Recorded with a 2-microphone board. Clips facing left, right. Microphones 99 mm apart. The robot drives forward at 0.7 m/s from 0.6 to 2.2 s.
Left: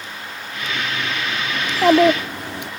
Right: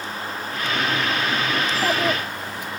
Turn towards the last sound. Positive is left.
turn(degrees=70)  # may be behind; listen again after turning